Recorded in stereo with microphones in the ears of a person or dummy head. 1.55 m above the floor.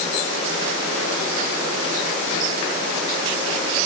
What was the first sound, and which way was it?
Only background noise.